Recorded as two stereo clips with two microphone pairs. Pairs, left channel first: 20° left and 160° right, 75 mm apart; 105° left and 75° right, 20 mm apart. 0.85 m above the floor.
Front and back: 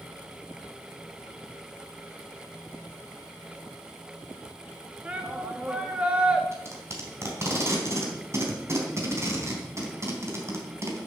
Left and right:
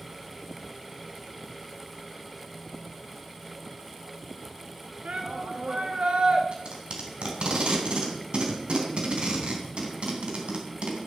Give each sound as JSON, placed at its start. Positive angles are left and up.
{"t": 5.0, "sound": "a shout", "azimuth_deg": -90, "distance_m": 1.6}
{"t": 6.5, "sound": "tape being pulled", "azimuth_deg": -110, "distance_m": 3.5}